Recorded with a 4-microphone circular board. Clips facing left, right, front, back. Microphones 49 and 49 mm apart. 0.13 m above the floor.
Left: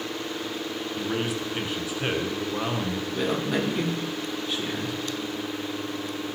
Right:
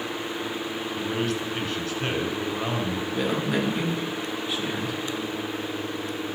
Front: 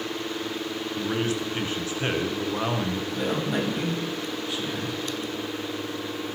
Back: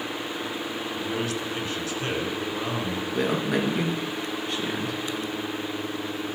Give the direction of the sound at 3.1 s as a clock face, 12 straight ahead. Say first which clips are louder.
Even, back 3 dB; 6 o'clock.